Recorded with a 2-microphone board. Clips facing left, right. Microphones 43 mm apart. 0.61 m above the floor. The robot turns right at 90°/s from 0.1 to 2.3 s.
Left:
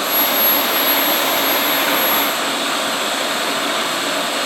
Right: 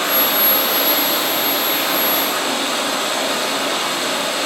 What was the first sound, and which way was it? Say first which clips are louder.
Running water: even; 50° right.